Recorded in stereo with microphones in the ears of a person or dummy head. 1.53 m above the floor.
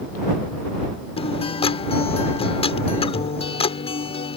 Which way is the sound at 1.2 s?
40° left (ahead or behind).